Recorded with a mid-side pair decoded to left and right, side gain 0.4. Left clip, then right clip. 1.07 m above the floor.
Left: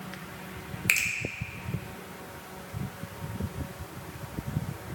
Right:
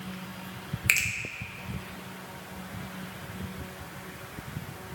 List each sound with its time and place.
0.9 s a finger snap: 10° right, 0.5 m